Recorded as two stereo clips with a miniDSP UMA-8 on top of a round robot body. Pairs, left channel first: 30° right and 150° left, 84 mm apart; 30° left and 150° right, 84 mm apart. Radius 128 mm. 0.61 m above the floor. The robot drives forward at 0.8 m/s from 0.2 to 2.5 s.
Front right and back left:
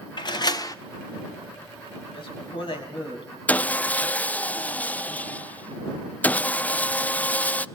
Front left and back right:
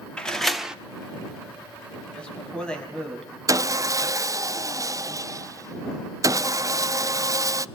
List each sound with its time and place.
0.2 s a door slam: 50° right, 1.3 m; by 0.8 s 70° right, 1.1 m
2.1 s a man speaking: 45° right, 5 m; by 3.4 s 50° right, 5 m
3.5 s sawing: 100° right, 0.6 m